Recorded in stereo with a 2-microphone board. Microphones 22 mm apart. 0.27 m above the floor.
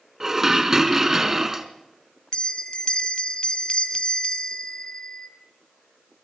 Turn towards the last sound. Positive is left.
turn(degrees=45)  # may be behind; listen again after turning